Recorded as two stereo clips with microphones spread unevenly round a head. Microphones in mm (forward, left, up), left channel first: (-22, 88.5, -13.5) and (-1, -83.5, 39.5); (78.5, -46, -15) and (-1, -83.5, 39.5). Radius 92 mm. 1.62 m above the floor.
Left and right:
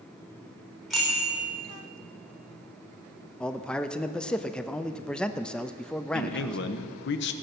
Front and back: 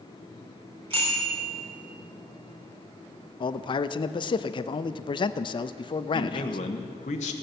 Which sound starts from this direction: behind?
A bicycle bell, at 0.9 s.